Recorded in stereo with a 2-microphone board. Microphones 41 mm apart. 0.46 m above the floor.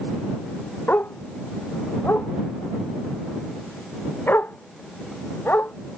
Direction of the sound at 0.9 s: 50° left (ahead or behind).